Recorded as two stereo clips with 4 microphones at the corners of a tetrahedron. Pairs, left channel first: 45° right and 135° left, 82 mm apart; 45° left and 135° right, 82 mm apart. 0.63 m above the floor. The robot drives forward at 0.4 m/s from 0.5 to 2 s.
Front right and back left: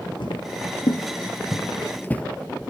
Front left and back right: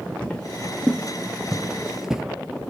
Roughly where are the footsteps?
Ahead right.